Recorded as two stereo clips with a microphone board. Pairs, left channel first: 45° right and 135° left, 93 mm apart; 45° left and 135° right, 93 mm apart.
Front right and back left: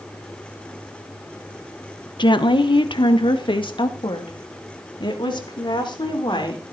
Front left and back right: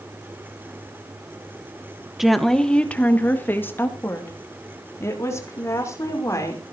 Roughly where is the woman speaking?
Ahead right.